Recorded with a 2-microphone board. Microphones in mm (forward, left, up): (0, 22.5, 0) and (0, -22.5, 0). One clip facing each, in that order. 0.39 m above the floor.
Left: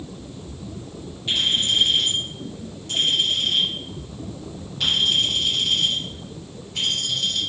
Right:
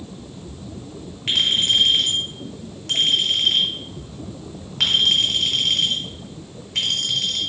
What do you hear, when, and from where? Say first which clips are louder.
1.3 s a clink: right 2 dB; 70° right (ahead or behind), 1.7 m